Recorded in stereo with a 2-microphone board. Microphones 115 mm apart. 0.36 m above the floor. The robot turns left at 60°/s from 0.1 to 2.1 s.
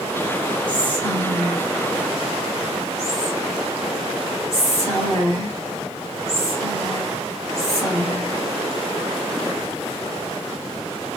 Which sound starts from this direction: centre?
Whispering, at 0.7 s.